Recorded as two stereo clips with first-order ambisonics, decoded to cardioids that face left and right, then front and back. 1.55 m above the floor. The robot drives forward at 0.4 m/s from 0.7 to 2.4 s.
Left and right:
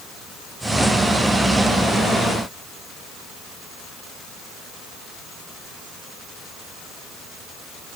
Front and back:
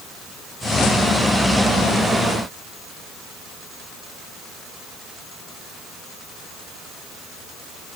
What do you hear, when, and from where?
Only background noise.